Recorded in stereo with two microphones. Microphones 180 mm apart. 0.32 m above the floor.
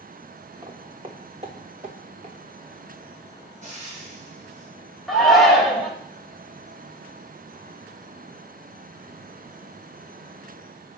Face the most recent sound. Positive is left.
turn(degrees=0)  # may be behind; listen again after turning